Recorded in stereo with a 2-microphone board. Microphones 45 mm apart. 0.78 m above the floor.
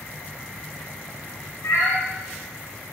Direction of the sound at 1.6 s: 75° left (ahead or behind).